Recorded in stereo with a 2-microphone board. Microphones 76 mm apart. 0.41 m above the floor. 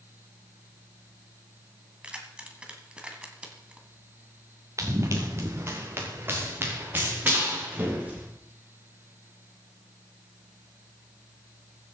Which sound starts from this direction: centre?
Keys jangling, at 2.0 s.